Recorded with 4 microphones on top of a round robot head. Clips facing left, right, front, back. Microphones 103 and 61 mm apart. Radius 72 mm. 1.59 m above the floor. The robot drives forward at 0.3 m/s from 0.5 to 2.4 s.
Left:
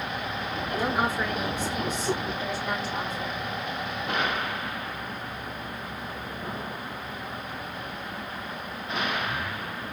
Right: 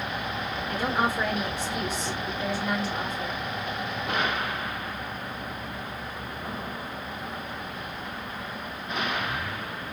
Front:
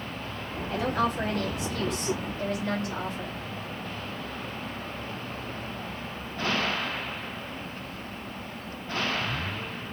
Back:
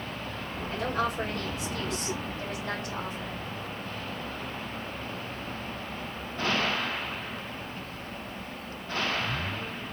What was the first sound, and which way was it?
A woman speaking, 55° right.